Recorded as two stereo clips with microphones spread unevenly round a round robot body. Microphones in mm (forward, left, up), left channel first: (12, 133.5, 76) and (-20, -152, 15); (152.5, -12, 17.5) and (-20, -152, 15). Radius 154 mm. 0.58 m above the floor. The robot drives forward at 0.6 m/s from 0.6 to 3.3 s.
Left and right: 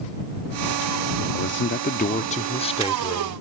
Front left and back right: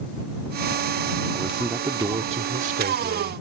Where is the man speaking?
120° left; by 3.4 s 165° left.